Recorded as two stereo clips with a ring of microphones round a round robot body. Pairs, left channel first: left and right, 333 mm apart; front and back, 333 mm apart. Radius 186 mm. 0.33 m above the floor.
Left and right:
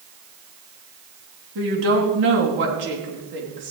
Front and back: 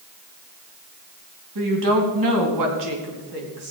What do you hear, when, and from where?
1.6 s a woman speaking: 145° right, 2.5 m; by 3.7 s 150° right, 4 m